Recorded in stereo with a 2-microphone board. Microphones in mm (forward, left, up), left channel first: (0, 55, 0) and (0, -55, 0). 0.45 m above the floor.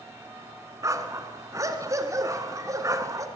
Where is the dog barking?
30° right (ahead or behind), 1.5 m.